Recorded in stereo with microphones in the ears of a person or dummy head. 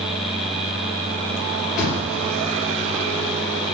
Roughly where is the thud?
Centre.